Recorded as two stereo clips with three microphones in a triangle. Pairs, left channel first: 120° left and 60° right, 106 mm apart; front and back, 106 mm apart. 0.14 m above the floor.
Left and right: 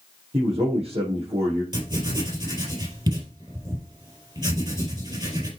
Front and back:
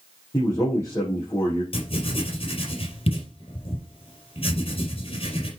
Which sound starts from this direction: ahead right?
A man speaking, at 0.3 s.